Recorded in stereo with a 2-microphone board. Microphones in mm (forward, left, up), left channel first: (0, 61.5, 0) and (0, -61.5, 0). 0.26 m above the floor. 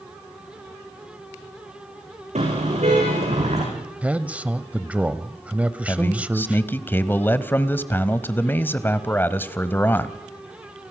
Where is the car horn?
65° right (ahead or behind), 9 m.